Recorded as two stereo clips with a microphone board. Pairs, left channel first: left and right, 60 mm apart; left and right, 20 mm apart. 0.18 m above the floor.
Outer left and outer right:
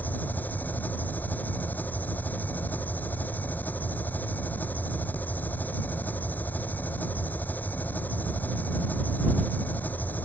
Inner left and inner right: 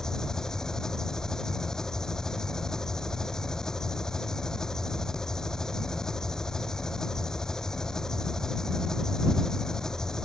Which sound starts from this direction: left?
An engine running, at 0.0 s.